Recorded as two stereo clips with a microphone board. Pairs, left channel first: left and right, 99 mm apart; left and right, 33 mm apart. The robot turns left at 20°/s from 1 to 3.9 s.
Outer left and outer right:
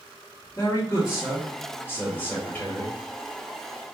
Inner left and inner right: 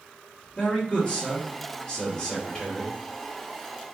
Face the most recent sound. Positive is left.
turn(degrees=10)